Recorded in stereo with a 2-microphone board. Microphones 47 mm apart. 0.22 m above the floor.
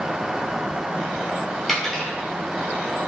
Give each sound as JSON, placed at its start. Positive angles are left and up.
{"t": 1.7, "sound": "a dropped coin", "side_deg": 0, "distance_m": 1.5}